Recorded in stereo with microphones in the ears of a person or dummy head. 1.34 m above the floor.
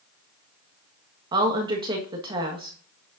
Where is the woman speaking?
30° right (ahead or behind), 1.5 m.